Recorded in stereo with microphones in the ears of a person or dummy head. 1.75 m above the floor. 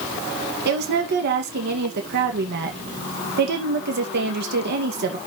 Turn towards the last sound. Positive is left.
turn(degrees=-60)  # may be behind; listen again after turning